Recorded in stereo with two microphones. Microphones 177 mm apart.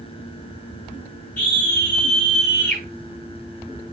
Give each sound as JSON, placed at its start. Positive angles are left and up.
{"t": 1.4, "sound": "a scream", "side_deg": 10, "distance_m": 6.0}